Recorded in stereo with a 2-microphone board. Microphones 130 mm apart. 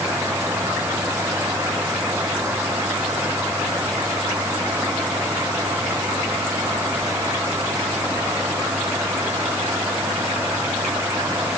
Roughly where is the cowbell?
I don't hear a cowbell.